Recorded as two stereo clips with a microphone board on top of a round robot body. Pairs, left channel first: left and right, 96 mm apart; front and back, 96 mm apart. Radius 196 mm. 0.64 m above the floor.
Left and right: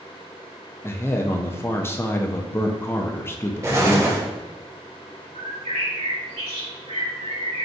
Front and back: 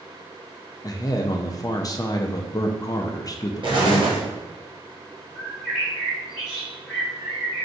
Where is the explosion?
145° right, 1.6 m.